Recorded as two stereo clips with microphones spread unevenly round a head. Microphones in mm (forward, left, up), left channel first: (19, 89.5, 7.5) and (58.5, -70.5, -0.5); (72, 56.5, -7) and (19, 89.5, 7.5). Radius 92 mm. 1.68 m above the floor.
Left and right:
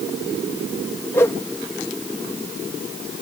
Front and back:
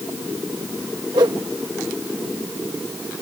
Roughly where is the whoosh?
Behind.